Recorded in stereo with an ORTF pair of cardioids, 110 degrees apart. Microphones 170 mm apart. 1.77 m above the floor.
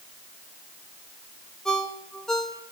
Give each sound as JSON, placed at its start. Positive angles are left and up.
{"t": 1.6, "sound": "a ringtone", "azimuth_deg": 5, "distance_m": 3.5}